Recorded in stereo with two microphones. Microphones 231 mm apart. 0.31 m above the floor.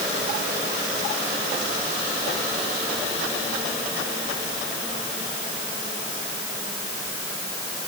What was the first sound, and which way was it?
Only background noise.